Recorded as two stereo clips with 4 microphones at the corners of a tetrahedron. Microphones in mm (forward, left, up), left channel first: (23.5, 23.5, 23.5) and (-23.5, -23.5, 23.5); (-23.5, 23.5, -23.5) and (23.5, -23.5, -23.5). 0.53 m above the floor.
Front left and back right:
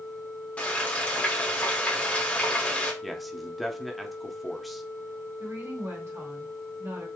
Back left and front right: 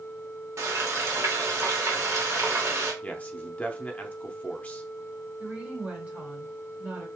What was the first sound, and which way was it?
Frying, 20° right.